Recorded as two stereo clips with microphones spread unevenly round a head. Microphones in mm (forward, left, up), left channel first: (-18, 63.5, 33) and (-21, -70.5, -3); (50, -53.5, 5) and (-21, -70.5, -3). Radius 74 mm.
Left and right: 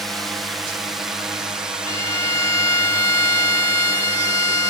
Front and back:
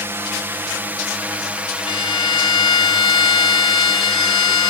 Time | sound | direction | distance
0.0 | a drone | 160° right | ?
1.9 | a violin | 20° left | ?